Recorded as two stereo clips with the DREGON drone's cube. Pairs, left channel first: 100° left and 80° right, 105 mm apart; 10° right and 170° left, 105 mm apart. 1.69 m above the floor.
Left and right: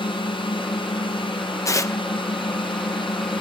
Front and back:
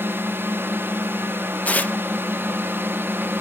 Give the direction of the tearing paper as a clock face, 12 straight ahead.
10 o'clock.